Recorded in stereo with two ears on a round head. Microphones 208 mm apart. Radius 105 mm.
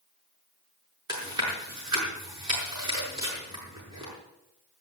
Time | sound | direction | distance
1.1 | chewing | 15° right (ahead or behind) | 6 m